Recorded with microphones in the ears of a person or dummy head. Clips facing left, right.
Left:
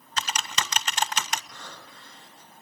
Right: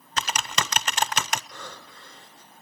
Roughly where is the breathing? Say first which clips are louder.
Right 3 dB; right.